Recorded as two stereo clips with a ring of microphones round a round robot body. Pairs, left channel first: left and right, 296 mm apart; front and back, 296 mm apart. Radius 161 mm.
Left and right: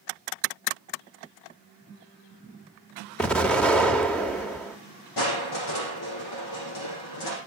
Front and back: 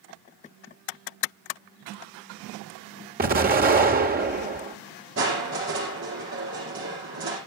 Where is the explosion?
175° left, 1.3 m.